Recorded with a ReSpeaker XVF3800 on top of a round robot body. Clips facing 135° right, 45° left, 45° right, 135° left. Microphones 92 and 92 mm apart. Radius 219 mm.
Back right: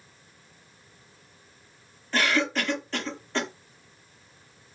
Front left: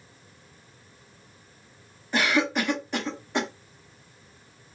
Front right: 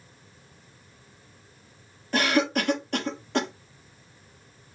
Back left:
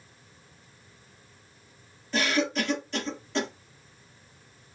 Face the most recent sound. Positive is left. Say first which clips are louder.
# front left 1 dB, front right 3 dB
turn(degrees=-30)